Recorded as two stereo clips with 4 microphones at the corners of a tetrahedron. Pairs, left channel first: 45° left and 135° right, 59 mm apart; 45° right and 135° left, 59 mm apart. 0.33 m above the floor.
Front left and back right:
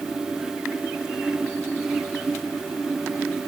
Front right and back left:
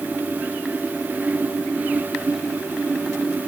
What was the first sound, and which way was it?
Only background noise.